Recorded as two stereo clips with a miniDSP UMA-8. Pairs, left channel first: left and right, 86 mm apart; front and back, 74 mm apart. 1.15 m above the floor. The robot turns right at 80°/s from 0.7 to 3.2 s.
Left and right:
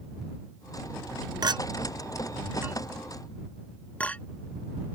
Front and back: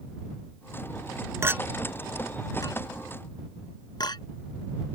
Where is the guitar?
No guitar in this recording.